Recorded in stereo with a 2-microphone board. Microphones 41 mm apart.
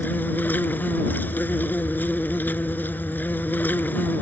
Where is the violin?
I don't hear a violin.